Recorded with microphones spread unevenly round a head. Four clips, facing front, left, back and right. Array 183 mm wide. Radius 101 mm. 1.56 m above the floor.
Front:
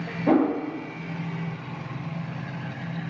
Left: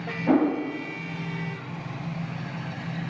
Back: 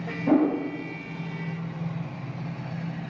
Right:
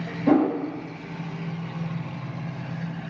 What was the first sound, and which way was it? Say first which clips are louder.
A whoosh: right 2 dB, front 1 dB; 45° right.